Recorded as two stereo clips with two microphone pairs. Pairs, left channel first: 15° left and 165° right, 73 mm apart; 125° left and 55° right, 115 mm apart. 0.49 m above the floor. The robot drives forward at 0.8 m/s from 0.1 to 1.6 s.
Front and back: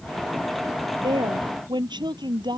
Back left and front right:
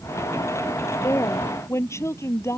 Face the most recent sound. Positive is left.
turn(degrees=-170)